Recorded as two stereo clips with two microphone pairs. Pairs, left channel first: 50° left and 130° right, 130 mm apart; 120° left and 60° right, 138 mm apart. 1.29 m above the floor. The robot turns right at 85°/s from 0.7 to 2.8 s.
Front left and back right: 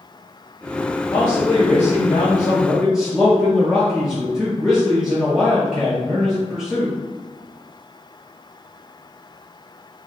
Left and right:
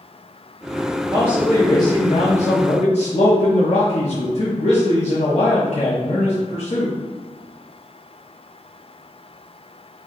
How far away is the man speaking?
About 0.6 m.